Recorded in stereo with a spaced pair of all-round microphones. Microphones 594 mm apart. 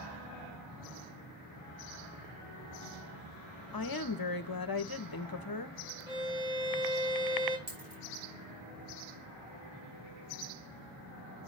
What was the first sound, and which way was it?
A woman speaking, 35° left (ahead or behind).